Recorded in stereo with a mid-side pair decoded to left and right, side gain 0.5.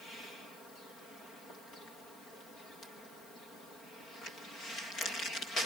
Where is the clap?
No clap in this recording.